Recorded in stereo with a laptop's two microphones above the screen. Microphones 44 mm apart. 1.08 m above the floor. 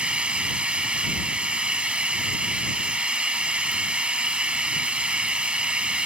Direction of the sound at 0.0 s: 25° right (ahead or behind).